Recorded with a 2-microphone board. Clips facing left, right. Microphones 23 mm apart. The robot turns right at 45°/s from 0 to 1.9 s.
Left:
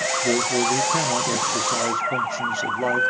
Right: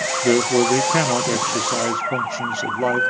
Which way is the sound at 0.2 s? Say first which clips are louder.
Right 6 dB; 100° right.